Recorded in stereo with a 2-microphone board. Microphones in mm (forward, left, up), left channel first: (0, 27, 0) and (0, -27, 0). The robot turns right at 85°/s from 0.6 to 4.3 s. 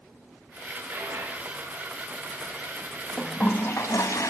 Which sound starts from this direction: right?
A dropped coin, at 0.9 s.